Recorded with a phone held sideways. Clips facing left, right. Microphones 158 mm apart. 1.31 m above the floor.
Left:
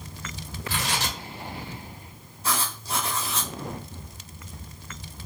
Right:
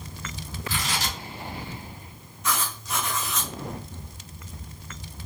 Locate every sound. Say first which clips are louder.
0.7 s tearing paper: left 1 dB; 70° left (ahead or behind), 1.9 m
2.4 s writing: even; 35° left (ahead or behind), 0.9 m